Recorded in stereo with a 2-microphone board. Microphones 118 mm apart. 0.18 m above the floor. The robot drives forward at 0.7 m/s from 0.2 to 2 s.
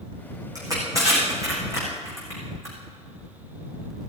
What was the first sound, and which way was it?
Crushing, 30° right (ahead or behind).